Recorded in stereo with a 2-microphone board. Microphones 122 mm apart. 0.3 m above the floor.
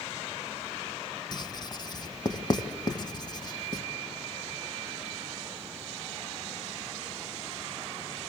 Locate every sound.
1.3 s writing: 35° left (ahead or behind), 1.4 m